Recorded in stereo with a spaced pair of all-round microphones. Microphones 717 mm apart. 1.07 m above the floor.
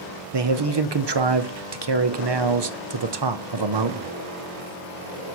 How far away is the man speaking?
About 0.6 m.